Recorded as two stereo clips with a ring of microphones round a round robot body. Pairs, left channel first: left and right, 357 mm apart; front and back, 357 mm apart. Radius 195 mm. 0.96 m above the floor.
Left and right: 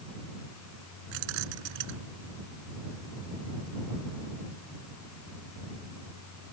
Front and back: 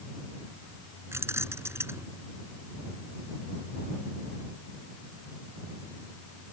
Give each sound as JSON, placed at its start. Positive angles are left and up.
{"t": 1.1, "sound": "keys jangling", "azimuth_deg": -95}